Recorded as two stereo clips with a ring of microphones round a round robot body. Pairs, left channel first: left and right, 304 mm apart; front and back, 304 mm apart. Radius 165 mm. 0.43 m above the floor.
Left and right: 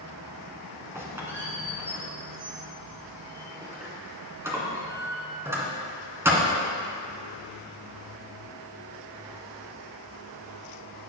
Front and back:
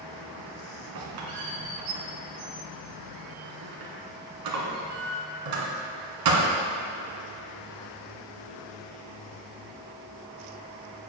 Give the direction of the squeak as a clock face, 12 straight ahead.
6 o'clock.